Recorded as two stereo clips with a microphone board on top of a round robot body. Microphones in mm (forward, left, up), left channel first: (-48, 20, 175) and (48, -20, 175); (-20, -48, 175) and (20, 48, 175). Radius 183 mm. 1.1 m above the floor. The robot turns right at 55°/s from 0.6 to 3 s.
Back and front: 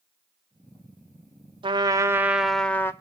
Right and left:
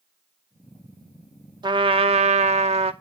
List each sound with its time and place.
1.6 s a trumpet: 20° left, 0.9 m; by 2.9 s 90° left, 0.9 m